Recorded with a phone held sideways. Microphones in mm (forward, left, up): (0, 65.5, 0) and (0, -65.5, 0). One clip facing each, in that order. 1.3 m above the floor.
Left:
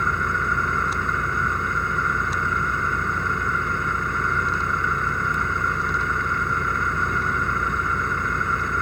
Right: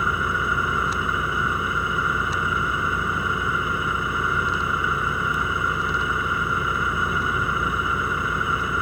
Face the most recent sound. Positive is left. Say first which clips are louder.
# even
turn(degrees=-5)  # may be behind; listen again after turning